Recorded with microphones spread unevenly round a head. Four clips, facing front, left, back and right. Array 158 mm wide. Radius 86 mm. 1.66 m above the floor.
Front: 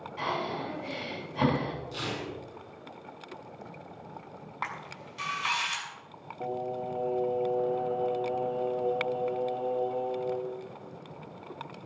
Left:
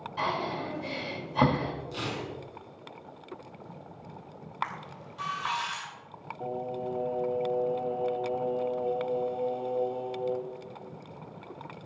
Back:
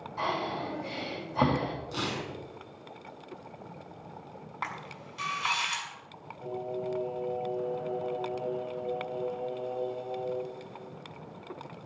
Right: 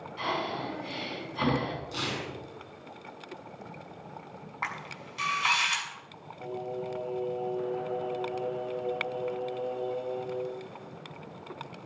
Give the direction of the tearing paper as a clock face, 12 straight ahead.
6 o'clock.